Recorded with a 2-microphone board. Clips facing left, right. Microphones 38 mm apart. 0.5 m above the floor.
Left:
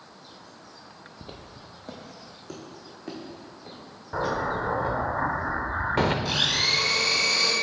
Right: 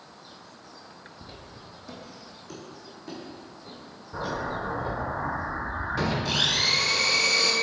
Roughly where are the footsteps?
Left.